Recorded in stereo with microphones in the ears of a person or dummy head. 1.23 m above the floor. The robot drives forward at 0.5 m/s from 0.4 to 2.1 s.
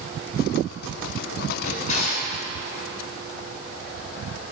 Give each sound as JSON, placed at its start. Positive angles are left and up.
{"t": 1.6, "sound": "a drawer", "side_deg": 45, "distance_m": 5.5}